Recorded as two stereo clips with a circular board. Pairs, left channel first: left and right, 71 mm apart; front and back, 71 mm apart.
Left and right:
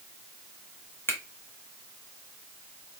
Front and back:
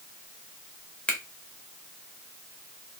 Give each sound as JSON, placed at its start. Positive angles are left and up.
{"t": 1.1, "sound": "a finger snap", "azimuth_deg": 60, "distance_m": 0.9}